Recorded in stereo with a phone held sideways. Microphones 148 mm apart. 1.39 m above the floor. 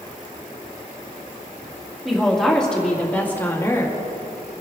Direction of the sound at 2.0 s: Centre (ahead or behind).